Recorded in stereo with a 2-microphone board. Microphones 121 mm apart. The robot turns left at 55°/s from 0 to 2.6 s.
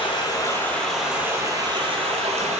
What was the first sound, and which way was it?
Running water, 55° left.